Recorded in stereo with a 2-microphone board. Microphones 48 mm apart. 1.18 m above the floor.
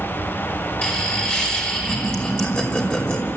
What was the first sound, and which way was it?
Laughter, 20° left (ahead or behind).